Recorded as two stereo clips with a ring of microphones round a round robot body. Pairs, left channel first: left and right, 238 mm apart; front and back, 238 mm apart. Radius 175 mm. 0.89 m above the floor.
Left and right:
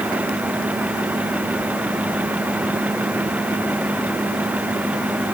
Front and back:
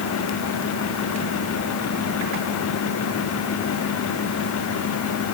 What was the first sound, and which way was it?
Only background noise.